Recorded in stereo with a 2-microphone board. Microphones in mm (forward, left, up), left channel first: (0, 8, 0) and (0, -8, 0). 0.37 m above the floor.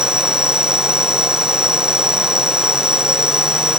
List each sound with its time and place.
0.0 s an insect: 60° right (ahead or behind)